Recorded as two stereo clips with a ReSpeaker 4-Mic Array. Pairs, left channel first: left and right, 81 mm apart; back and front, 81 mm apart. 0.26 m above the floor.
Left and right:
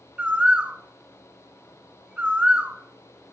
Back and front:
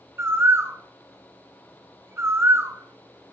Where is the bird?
25° right, 0.5 m.